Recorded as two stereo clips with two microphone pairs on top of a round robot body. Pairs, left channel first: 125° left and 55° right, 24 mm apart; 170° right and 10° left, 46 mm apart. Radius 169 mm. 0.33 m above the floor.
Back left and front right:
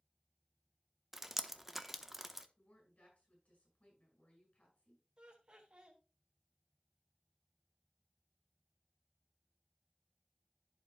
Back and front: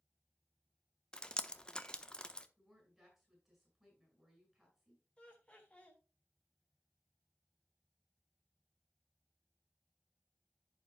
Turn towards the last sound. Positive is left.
turn(degrees=-105)